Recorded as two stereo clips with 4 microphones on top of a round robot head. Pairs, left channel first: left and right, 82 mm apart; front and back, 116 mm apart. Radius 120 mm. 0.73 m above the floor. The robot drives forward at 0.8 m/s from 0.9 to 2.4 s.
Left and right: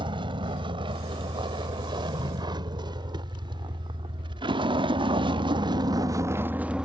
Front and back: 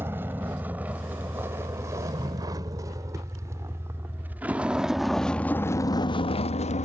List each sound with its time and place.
0.0 s a vehicle: 110° right; by 6.9 s 10° right